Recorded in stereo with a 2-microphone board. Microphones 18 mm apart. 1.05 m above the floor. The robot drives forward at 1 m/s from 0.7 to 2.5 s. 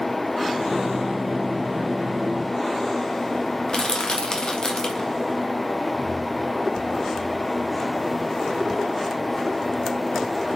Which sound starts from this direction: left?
Crushing, at 3.7 s.